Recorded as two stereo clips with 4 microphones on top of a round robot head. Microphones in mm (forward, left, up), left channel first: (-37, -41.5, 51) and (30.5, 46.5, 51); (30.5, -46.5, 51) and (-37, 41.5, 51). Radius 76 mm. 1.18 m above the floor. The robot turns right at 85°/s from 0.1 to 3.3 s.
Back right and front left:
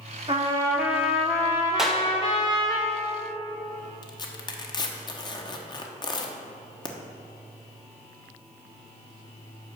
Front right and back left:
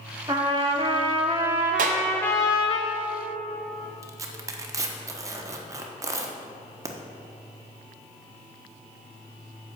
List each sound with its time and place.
0.3 s a trumpet: 80° left, 0.8 m; by 2.8 s 65° right, 0.8 m
1.8 s a clap: 140° left, 0.8 m; by 2.0 s 160° left, 0.8 m
4.0 s tearing paper: 175° right, 1.1 m